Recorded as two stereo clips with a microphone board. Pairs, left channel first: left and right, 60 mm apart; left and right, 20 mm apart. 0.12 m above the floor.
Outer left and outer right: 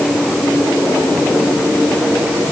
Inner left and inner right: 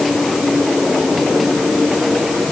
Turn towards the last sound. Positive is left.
No sound to turn to.